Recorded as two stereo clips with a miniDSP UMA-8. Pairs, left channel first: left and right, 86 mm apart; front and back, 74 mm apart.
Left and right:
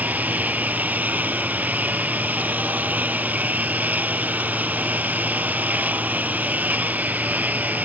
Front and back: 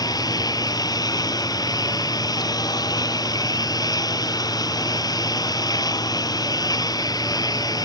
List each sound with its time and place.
0.0 s a lawn mower: 20° right